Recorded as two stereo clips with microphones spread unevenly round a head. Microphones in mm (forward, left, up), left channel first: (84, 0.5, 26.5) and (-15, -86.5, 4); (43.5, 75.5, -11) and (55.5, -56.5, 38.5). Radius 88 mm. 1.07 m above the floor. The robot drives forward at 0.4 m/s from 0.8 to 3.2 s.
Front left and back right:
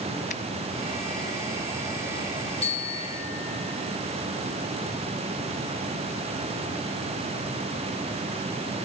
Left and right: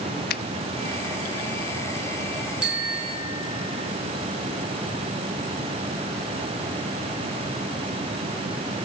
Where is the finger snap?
90° left, 0.8 m.